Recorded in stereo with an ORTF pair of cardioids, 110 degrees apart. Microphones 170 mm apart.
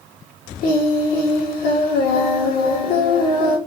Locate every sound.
0.6 s singing: 65° left, 1.8 m